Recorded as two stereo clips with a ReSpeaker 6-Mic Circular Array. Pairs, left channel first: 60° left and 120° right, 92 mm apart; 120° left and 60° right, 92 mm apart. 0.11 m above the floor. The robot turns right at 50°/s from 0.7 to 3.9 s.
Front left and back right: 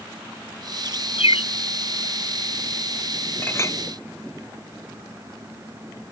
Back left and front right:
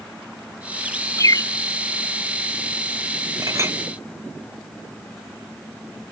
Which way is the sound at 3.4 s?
10° right.